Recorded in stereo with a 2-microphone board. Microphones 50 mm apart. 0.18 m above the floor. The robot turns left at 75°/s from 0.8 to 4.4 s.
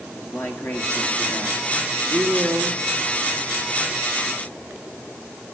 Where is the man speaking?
75° left, 2.5 m; by 2.8 s 75° right, 2.5 m.